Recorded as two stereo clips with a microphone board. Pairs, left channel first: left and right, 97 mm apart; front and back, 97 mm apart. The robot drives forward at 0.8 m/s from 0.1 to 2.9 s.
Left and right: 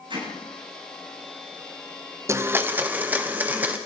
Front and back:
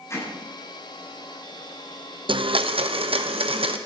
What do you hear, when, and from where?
0.1 s hammering: 60° right, 9 m
2.3 s a blender: 150° right, 0.8 m; by 3.8 s 160° right, 1.2 m